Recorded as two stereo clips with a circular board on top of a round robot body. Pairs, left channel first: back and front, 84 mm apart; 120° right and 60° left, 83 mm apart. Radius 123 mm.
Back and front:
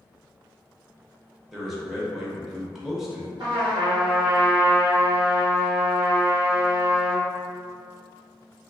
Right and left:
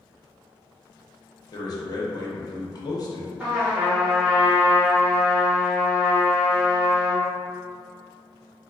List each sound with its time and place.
1.5 s a man speaking: 85° right, 0.8 m
3.4 s a trumpet: 15° right, 1.4 m